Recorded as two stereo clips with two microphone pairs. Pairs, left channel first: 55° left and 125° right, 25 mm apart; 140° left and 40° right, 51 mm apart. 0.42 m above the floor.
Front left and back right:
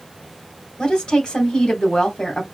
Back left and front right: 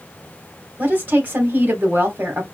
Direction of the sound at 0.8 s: 5° left.